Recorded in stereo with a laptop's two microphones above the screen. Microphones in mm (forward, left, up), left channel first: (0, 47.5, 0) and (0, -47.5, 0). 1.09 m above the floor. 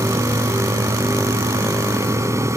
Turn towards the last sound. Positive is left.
turn(degrees=-30)  # may be behind; listen again after turning